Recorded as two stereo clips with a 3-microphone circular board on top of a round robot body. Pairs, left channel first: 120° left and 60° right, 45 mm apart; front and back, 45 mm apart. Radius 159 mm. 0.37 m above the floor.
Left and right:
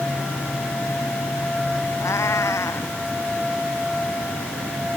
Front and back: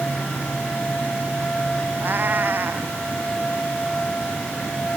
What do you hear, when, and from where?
2.0 s a cat meowing: 130° left